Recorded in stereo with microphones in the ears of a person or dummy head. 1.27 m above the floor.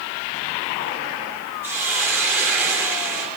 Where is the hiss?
10° right (ahead or behind), 3 m.